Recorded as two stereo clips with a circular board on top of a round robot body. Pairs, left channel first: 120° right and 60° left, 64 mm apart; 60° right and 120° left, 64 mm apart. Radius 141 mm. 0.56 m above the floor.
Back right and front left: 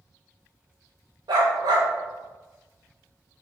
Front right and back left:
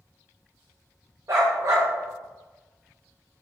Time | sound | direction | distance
1.3 | a dog barking | 80° left | 0.7 m